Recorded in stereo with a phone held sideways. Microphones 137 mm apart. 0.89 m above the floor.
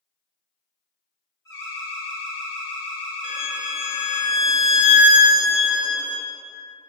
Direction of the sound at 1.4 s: 25° left (ahead or behind).